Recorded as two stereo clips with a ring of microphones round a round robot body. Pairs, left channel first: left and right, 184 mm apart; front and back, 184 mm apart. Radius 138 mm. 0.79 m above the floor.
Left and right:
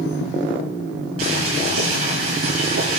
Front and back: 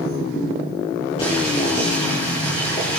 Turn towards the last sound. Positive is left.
turn(degrees=-70)